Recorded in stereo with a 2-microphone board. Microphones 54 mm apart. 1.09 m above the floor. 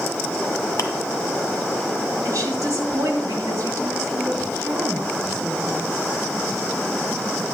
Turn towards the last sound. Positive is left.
turn(degrees=-85)